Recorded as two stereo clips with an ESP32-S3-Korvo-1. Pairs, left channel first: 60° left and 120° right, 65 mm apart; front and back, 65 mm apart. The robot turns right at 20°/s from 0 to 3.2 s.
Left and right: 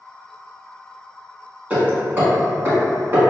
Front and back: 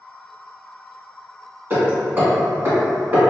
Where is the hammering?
165° right, 1.2 m; by 3.2 s 135° right, 1.2 m.